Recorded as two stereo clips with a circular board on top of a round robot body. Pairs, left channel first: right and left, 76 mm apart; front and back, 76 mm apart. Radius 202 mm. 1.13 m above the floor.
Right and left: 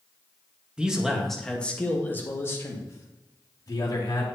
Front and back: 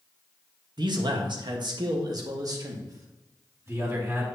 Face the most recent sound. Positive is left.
turn(degrees=-125)